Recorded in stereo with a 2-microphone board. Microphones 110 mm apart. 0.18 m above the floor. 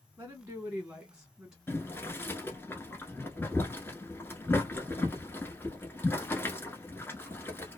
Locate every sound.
0.2 s a woman speaking: 25° right (ahead or behind), 1.1 m; by 1.6 s 5° right (ahead or behind), 1.5 m
1.7 s boiling: 20° left (ahead or behind), 0.9 m